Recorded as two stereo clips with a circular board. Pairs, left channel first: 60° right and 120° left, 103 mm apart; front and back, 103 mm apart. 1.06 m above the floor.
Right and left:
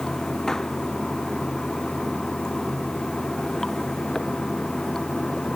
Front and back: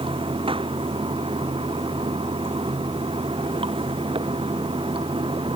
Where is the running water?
145° right.